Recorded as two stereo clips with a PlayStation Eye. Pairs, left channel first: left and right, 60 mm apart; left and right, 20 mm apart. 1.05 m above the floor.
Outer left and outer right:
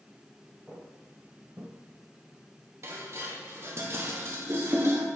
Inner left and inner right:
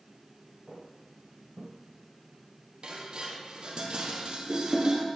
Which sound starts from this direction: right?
Dishes clattering, at 2.8 s.